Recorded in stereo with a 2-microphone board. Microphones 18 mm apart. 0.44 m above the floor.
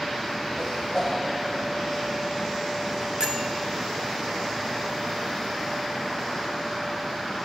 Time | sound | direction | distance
0.6 | a whoosh | 50° left (ahead or behind) | 2.5 m
3.2 | a bell | 45° right (ahead or behind) | 0.6 m